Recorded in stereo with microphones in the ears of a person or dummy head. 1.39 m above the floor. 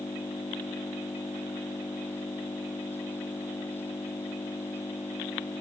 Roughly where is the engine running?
Centre.